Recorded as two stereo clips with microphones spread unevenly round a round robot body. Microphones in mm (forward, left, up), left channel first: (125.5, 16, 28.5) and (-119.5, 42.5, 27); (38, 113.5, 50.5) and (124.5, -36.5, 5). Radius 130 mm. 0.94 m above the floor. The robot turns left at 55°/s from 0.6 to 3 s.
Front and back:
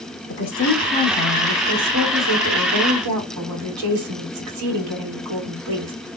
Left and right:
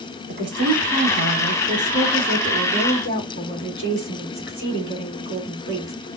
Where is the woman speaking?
55° right, 2.5 m; by 5.9 s 175° left, 2.5 m.